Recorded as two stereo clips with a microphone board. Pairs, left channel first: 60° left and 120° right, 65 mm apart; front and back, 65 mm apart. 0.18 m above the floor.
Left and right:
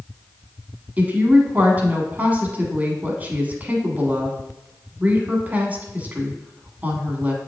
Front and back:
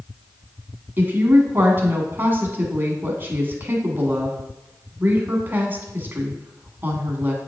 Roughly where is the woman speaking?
Behind.